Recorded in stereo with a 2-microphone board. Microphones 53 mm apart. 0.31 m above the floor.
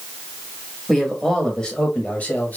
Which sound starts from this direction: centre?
A man speaking, at 0.9 s.